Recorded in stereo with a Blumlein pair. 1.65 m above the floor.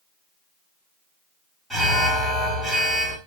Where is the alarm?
10° right, 4.5 m.